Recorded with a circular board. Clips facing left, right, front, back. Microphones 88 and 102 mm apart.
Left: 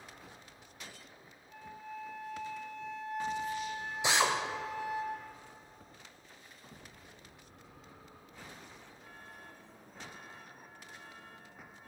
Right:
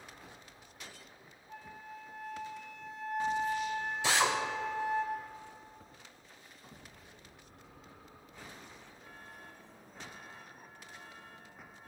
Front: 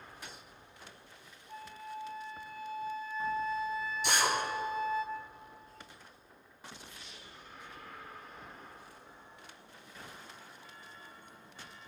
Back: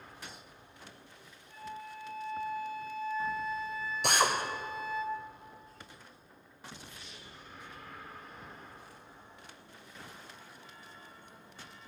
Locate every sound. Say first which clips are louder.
1.5 s a flute: left 2 dB, even; 50° right, 3 m
4.0 s a drill: left 1 dB, back 3 dB; 160° left, 2.5 m